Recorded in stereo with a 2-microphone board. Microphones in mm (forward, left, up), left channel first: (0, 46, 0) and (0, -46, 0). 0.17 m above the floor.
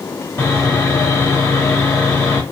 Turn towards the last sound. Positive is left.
turn(degrees=30)  # may be behind; listen again after turning